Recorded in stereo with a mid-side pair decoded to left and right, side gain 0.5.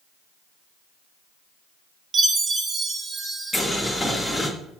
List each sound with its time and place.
2.1 s a chime: 35° right, 0.8 m
3.5 s boiling: straight ahead, 1.1 m